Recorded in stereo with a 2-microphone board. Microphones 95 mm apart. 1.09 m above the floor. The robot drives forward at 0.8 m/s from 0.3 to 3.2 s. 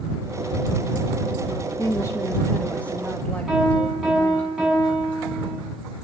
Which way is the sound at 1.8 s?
35° left (ahead or behind).